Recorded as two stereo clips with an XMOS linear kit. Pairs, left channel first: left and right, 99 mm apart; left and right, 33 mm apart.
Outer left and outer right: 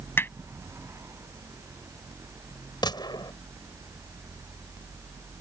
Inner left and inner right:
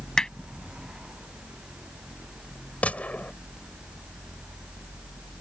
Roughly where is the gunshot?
Left.